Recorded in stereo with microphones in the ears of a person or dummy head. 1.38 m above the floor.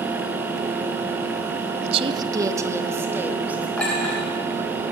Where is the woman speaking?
40° right (ahead or behind), 0.7 m; by 3.7 s 10° right (ahead or behind), 3 m.